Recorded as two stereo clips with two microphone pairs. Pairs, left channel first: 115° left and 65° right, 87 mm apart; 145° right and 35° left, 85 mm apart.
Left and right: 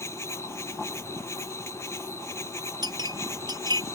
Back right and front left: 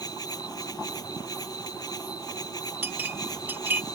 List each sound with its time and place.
0.0 s an insect: 175° left
2.8 s a clink: 30° right